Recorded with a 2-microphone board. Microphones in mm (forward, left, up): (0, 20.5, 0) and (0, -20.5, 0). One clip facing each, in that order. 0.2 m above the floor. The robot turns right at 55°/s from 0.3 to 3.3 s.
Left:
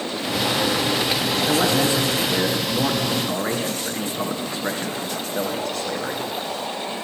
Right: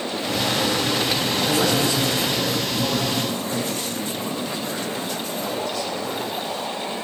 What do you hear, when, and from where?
1.5 s a man speaking: 10° left, 3 m; by 6.3 s 110° left, 3 m